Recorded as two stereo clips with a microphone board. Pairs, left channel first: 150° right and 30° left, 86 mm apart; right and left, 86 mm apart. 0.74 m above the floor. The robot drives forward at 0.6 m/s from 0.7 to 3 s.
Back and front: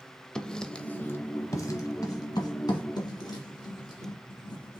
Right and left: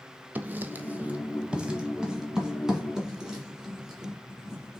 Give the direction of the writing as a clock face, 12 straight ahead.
7 o'clock.